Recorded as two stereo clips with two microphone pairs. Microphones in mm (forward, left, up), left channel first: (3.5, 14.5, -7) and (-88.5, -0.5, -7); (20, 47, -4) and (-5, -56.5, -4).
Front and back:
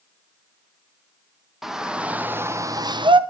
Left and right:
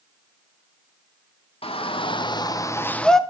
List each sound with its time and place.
1.6 s a shout: 105° left, 1.7 m; by 3.2 s 165° left, 1.0 m